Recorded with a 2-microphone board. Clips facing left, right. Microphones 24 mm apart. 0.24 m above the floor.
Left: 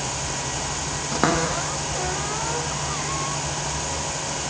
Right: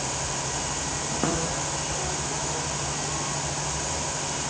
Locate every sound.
1.1 s a cupboard door: 85° left